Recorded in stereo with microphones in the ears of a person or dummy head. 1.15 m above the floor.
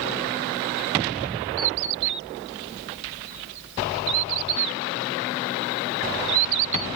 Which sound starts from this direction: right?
A bird, at 1.6 s.